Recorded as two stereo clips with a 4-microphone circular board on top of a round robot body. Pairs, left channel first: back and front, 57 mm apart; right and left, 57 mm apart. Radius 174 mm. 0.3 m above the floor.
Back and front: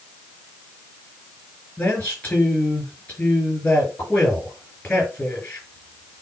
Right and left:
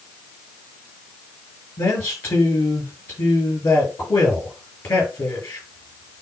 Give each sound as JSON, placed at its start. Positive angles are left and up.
{"t": 1.8, "sound": "a man speaking", "azimuth_deg": -120, "distance_m": 7.5}